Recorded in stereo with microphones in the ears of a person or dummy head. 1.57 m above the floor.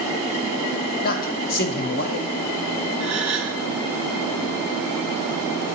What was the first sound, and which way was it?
A man speaking, 45° left (ahead or behind).